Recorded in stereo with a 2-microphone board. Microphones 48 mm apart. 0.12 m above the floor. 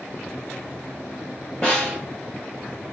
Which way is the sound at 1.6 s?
20° left (ahead or behind).